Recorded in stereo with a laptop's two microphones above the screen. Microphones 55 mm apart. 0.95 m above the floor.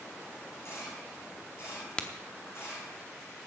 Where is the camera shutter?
50° left (ahead or behind), 8 m.